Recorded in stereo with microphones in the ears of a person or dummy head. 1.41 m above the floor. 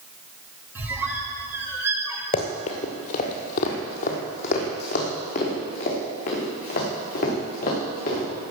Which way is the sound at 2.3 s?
30° left (ahead or behind).